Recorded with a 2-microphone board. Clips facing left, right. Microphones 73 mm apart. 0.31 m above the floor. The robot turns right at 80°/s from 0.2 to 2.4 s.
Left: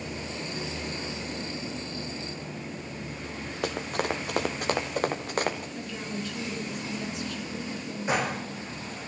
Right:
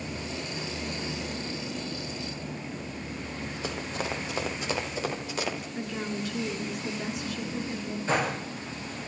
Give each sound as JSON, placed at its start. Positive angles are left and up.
{"t": 3.6, "sound": "running footsteps", "side_deg": 60, "distance_m": 3.5}
{"t": 5.8, "sound": "a woman speaking", "side_deg": -20, "distance_m": 4.0}
{"t": 8.1, "sound": "a gunshot", "side_deg": 15, "distance_m": 6.5}